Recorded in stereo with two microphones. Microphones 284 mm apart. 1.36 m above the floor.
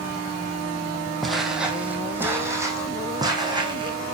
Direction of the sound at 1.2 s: Centre (ahead or behind).